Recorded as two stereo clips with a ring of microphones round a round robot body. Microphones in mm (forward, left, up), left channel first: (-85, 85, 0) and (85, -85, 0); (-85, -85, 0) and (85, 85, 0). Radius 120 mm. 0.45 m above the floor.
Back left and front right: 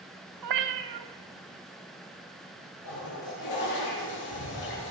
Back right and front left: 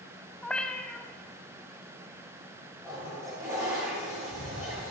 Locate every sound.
0.4 s a cat meowing: 50° right, 1.0 m
2.8 s a toilet flushing: 125° left, 6.5 m